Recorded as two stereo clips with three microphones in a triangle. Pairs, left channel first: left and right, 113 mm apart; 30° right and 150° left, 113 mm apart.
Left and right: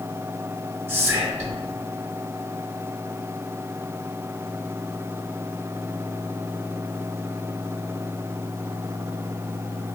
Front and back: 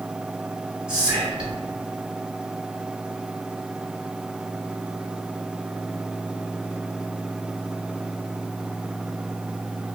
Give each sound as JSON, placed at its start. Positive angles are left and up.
{"t": 0.9, "sound": "whispering", "azimuth_deg": -140, "distance_m": 1.1}